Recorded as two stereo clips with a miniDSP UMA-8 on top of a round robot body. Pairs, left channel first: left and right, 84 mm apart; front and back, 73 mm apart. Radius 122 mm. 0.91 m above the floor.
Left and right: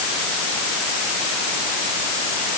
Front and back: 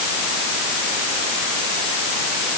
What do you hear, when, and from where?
Only background noise.